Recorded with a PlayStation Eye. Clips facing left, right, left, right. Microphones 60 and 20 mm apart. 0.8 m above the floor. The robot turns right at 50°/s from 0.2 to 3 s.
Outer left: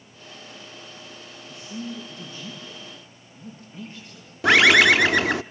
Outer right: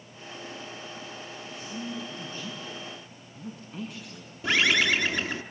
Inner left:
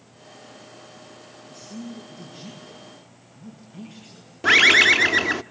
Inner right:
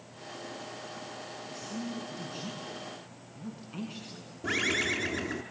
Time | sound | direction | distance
1.5 | a man speaking | 175° left | 7.5 m
4.4 | a bird | 65° left (ahead or behind) | 0.6 m